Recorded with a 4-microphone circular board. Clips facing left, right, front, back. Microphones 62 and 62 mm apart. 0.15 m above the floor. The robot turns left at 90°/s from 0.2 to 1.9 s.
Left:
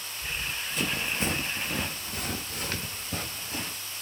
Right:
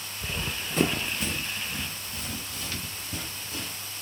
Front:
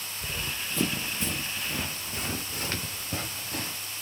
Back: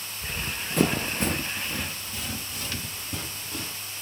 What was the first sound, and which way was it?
Running footsteps, 65° right.